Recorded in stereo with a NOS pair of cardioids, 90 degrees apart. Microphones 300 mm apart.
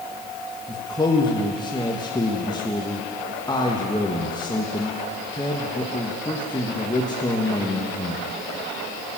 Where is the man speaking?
15° left, 1.5 m.